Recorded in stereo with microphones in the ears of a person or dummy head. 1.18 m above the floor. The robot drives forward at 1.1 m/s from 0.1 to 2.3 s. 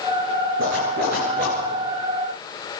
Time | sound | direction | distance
0.6 | a zipper | 65° right (ahead or behind) | 9 m